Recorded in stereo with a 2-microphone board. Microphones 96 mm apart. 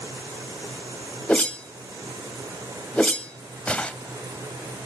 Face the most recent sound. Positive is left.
turn(degrees=10)  # may be behind; listen again after turning